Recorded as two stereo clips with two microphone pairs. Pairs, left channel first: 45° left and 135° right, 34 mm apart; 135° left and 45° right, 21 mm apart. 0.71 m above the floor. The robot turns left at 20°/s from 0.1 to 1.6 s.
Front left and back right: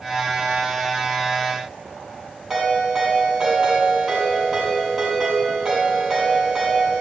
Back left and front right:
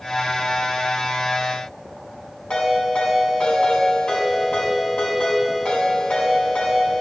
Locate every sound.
2.5 s a ringtone: 145° left, 4 m